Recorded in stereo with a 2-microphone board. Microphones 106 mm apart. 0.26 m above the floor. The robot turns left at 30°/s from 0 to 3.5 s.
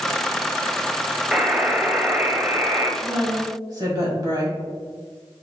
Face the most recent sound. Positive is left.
turn(degrees=-35)  # may be behind; listen again after turning